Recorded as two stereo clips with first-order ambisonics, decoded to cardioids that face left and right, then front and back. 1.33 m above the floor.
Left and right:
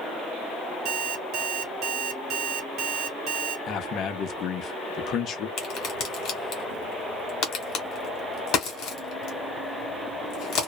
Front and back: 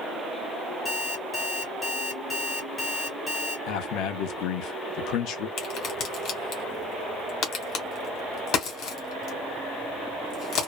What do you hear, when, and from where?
0.8 s an alarm clock: 65° right, 1.0 m
3.7 s a man speaking: 35° left, 0.6 m
5.6 s a crack: 45° left, 1.2 m